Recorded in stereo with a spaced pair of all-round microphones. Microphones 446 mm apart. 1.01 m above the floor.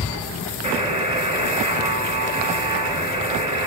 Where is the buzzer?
10° right (ahead or behind), 1.7 m.